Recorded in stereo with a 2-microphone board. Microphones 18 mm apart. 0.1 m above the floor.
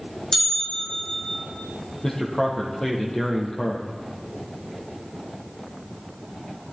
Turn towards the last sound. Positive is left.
turn(degrees=30)  # may be behind; listen again after turning